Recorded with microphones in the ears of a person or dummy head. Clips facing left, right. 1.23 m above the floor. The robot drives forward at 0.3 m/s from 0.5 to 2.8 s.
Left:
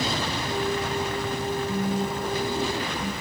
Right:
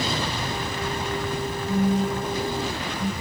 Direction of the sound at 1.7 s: 30° right (ahead or behind).